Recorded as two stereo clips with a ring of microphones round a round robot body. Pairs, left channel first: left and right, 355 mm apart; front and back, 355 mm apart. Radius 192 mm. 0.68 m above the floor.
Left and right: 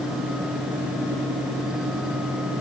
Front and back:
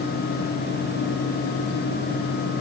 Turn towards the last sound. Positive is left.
No sound to turn to.